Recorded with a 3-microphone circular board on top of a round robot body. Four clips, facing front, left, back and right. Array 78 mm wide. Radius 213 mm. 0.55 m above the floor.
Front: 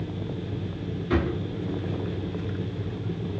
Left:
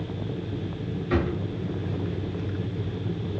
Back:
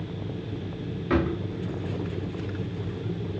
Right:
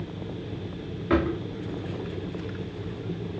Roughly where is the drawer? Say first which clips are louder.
Right 3 dB, back 1 dB; behind right.